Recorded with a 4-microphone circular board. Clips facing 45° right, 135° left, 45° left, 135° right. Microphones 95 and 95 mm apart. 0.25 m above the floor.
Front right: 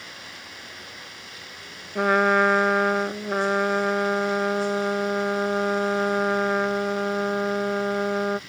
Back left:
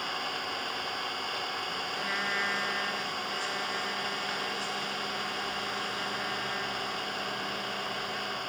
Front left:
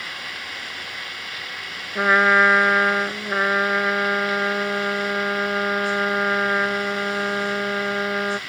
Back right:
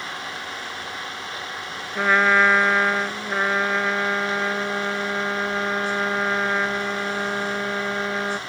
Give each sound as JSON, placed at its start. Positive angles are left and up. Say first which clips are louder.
{"t": 0.0, "sound": "an engine running", "louder": "back left 8 dB, back right 3 dB", "azimuth_deg": 160}
{"t": 1.9, "sound": "a trumpet", "louder": "front right 17 dB, front left 2 dB", "azimuth_deg": -35}